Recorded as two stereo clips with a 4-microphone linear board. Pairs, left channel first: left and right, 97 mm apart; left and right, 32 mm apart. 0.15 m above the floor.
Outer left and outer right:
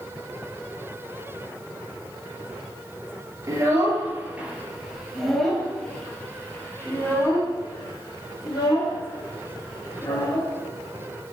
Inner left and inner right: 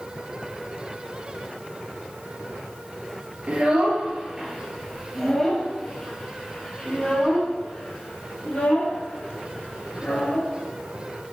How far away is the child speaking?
About 2 m.